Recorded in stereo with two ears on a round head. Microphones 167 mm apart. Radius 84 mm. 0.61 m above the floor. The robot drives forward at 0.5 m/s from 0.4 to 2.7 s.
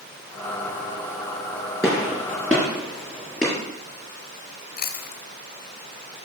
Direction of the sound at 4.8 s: 45° left (ahead or behind).